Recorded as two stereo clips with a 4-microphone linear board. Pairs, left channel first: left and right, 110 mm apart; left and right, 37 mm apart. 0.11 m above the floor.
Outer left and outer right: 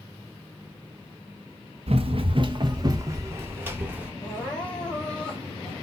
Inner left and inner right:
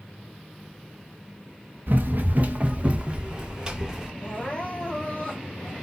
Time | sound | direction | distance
1.9 | running footsteps | 65° right (ahead or behind) | 0.8 m
4.2 | crying | 45° left (ahead or behind) | 1.8 m